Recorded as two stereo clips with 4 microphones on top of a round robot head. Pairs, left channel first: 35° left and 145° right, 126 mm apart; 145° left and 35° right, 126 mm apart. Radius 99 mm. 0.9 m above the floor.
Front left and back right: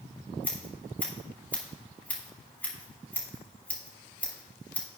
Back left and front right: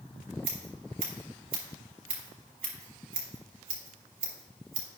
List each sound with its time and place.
0.4 s scissors: 45° right, 4.5 m